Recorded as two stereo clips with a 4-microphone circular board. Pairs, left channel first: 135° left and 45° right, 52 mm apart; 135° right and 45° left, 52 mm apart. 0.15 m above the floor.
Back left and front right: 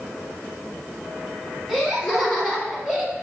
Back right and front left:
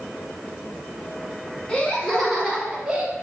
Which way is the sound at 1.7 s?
130° right.